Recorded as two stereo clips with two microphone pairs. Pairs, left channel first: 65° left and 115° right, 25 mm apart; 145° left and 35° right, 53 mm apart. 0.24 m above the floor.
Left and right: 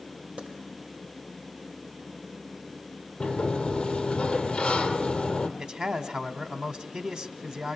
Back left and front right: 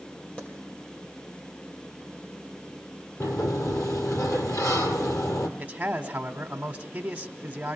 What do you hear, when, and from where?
0.4 s a clap: 140° right, 5.5 m
3.2 s a sliding door: 125° left, 2.5 m
5.6 s a man speaking: 90° right, 2 m